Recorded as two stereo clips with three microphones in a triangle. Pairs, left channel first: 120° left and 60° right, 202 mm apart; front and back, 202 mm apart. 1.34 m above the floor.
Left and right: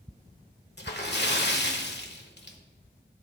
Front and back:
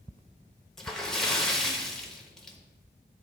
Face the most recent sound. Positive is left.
turn(degrees=90)